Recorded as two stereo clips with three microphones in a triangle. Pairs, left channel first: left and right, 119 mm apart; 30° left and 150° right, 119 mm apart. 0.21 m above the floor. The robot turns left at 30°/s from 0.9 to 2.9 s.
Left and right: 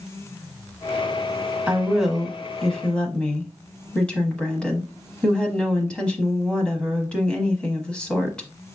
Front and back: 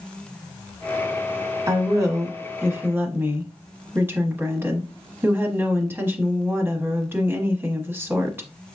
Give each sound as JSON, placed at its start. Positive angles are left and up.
{"t": 1.7, "sound": "a woman speaking", "azimuth_deg": -160, "distance_m": 1.0}